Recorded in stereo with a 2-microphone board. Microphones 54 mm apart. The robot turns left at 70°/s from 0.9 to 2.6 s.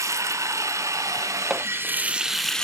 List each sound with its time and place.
0.0 s running water: 75° right, 0.7 m; by 2.6 s 165° left, 0.7 m
1.5 s hammering: 15° right (ahead or behind), 0.9 m; by 1.7 s 25° right (ahead or behind), 0.9 m